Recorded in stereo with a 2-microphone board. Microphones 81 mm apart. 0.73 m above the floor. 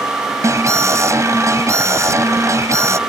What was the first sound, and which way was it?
An alarm, 40° right (ahead or behind).